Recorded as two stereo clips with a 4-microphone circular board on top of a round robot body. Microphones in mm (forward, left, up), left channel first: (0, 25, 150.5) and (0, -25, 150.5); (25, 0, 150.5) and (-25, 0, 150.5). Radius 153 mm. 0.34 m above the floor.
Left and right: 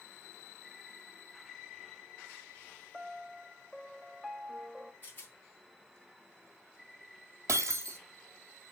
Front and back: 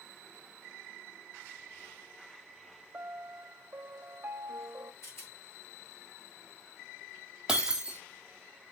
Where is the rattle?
35° left, 3.5 m.